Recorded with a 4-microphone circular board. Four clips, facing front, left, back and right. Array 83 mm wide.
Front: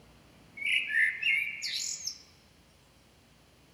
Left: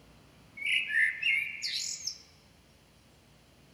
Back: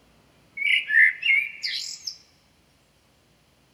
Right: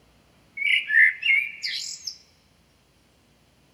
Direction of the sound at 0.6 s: 130° right.